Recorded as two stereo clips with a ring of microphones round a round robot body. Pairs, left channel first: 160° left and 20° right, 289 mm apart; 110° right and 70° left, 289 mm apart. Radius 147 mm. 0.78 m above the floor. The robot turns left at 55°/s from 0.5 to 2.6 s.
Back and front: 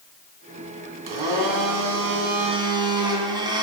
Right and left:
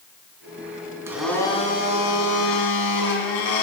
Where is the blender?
15° right, 2.5 m; by 3.6 s 100° right, 2.5 m.